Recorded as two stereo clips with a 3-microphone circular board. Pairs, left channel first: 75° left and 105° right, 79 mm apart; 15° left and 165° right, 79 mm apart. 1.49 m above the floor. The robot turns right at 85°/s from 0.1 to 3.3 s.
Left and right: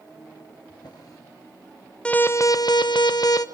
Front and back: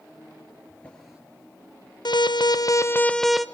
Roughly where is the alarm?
Ahead.